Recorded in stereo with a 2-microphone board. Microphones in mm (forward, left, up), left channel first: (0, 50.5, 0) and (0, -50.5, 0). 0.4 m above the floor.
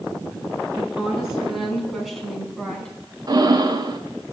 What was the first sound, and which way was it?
A woman speaking, 5° right (ahead or behind).